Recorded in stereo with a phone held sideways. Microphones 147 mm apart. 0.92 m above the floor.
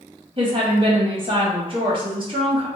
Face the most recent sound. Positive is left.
turn(degrees=-40)  # may be behind; listen again after turning